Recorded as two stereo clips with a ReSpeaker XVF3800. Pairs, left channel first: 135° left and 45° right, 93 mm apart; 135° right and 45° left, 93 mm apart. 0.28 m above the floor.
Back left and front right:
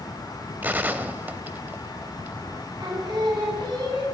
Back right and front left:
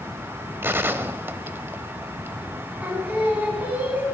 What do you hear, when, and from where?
0.6 s a gunshot: 5° left, 0.6 m
2.8 s singing: 25° right, 3 m